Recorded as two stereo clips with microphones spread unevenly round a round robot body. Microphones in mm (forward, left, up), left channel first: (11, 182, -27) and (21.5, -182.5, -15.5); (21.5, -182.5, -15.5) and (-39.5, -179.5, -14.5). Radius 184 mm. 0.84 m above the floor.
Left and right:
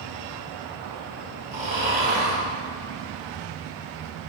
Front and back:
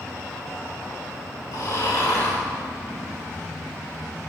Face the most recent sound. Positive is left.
turn(degrees=-20)